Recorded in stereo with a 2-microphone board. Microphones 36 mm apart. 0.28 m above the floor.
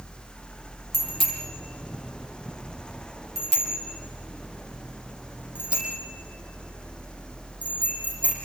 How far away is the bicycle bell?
About 6.5 m.